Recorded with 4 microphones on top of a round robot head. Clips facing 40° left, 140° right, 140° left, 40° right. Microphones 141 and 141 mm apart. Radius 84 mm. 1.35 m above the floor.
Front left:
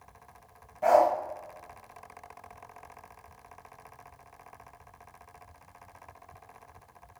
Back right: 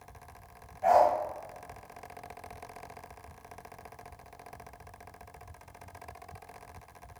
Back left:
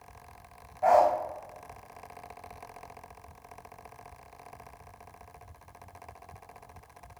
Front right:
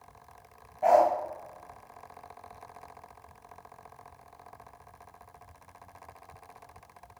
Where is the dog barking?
30° left, 1.2 m.